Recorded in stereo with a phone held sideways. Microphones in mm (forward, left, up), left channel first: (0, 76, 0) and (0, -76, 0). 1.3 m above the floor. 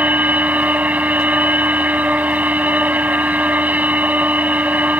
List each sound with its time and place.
0.0 s a machine running: 10° right (ahead or behind)